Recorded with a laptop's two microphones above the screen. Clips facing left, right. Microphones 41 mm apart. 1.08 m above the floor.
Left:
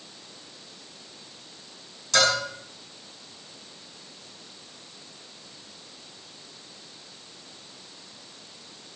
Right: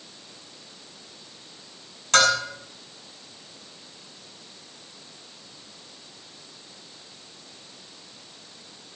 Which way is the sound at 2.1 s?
50° right (ahead or behind).